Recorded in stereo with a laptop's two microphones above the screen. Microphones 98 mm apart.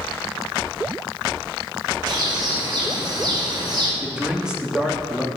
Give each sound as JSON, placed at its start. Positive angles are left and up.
{"t": 2.1, "sound": "a bird", "side_deg": -45, "distance_m": 3.5}
{"t": 4.0, "sound": "a man speaking", "side_deg": -10, "distance_m": 2.0}